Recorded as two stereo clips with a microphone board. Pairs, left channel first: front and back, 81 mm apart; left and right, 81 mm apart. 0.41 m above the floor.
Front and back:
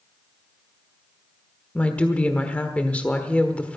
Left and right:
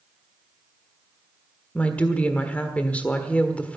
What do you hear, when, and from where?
1.8 s a woman speaking: 45° left, 1.3 m